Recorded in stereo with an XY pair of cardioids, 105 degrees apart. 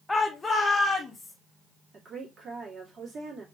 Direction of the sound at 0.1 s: 15° left.